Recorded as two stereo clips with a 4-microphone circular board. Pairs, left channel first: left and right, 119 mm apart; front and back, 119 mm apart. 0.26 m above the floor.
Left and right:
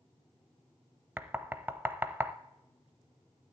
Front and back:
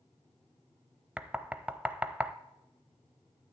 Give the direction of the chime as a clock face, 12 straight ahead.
No chime in this recording.